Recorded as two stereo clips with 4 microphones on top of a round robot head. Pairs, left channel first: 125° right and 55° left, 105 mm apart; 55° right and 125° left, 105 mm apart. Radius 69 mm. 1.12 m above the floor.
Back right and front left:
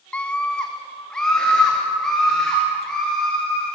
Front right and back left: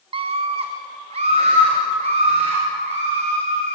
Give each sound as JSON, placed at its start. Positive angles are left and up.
{"t": 0.1, "sound": "a scream", "azimuth_deg": 160, "distance_m": 0.5}